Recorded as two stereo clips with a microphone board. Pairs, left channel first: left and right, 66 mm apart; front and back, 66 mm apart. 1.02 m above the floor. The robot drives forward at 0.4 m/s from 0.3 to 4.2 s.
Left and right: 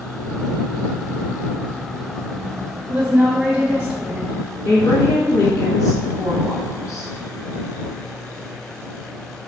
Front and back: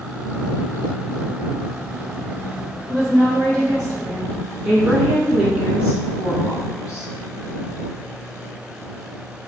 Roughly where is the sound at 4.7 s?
Behind left.